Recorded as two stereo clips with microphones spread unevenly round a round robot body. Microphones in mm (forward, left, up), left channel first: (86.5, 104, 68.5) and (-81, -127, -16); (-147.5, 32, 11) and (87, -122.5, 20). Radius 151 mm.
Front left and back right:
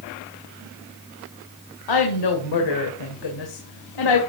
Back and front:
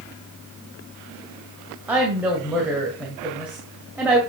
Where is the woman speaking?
50° left, 1.9 m.